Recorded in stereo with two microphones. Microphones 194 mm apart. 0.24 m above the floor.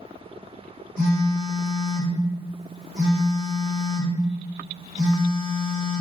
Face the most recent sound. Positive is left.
turn(degrees=20)  # may be behind; listen again after turning